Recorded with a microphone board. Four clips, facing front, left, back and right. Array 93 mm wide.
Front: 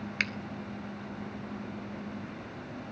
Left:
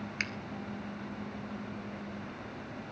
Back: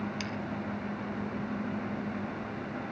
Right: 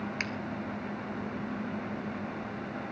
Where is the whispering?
I don't hear whispering.